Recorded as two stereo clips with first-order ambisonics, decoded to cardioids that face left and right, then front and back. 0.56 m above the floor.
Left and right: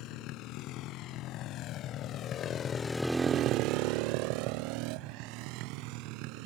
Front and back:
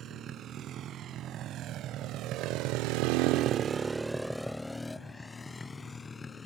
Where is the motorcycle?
125° left; by 6.5 s 75° right.